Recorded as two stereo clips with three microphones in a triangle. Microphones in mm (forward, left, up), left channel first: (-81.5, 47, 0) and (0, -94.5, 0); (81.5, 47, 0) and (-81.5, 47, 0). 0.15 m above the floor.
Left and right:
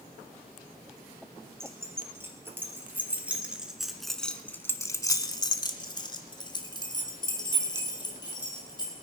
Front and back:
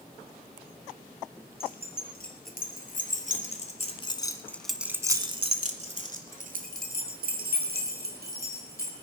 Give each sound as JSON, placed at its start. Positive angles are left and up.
{"t": 1.6, "sound": "keys jangling", "azimuth_deg": 15, "distance_m": 2.5}